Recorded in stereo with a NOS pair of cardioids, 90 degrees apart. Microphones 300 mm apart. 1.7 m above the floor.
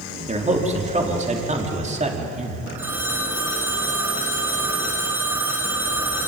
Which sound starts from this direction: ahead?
A phone ringing, at 2.8 s.